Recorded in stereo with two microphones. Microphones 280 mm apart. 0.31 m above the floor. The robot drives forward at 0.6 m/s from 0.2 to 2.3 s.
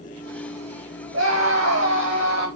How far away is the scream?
About 2 m.